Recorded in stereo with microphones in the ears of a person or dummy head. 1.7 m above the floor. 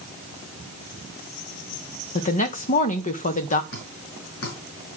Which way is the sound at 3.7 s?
50° left (ahead or behind).